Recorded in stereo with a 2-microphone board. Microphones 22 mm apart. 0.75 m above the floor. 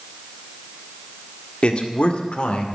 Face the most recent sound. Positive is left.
turn(degrees=55)  # may be behind; listen again after turning